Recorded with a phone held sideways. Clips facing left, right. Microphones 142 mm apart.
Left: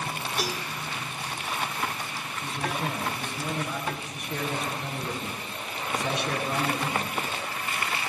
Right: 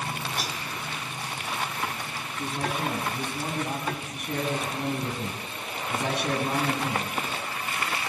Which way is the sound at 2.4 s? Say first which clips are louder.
Right 2 dB; 55° right (ahead or behind).